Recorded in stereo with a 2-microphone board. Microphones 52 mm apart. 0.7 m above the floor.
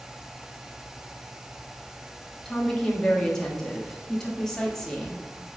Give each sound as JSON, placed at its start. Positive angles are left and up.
{"t": 2.5, "sound": "a woman speaking", "side_deg": 10, "distance_m": 1.5}